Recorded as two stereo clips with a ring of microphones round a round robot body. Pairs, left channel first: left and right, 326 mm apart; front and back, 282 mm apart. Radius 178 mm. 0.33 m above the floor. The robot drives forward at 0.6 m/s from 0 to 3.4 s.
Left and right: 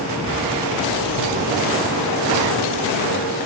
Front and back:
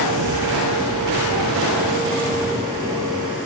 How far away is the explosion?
About 6 m.